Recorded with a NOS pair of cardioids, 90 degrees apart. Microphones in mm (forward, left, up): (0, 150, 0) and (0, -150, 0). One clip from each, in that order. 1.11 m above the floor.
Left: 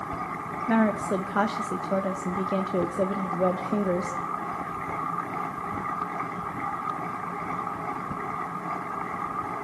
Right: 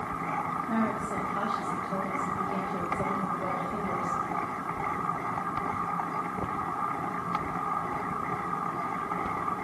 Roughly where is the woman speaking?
Ahead left.